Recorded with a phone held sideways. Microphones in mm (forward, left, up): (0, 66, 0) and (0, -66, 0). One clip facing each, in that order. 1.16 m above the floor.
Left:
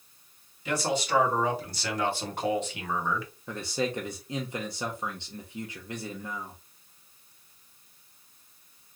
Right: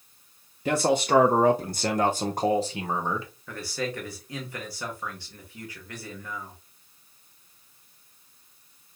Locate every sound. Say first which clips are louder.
0.7 s a man speaking: right 6 dB; 55° right (ahead or behind), 0.9 m; by 3.3 s 30° right (ahead or behind), 1.4 m
3.5 s a man speaking: left 2 dB; 25° left (ahead or behind), 1.1 m